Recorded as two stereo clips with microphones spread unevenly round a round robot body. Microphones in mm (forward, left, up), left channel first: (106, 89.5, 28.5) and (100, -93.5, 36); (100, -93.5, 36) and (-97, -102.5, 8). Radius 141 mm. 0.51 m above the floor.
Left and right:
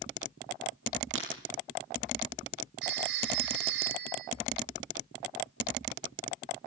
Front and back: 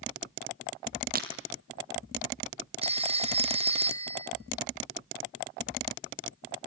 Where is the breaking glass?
135° right, 3 m.